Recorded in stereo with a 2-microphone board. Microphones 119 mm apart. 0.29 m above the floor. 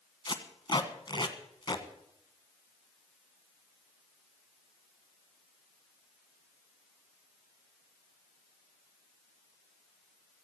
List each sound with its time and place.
0.2 s tape being pulled: 40° left (ahead or behind), 1.2 m